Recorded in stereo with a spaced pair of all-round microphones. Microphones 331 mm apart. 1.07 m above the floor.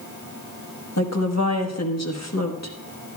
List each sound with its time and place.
1.0 s a woman speaking: 50° left (ahead or behind), 1.3 m